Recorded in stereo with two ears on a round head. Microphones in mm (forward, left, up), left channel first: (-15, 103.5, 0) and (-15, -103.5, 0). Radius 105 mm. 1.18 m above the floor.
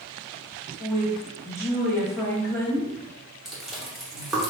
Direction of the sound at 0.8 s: 10° left (ahead or behind).